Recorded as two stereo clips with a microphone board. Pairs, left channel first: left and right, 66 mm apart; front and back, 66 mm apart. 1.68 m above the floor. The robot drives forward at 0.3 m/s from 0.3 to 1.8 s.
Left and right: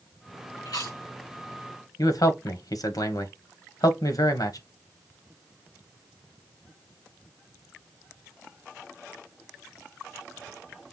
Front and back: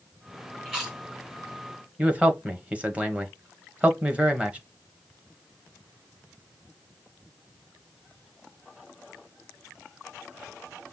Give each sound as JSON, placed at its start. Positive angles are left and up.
{"t": 0.7, "sound": "chewing", "azimuth_deg": 100, "distance_m": 3.0}
{"t": 2.0, "sound": "a man speaking", "azimuth_deg": 110, "distance_m": 1.1}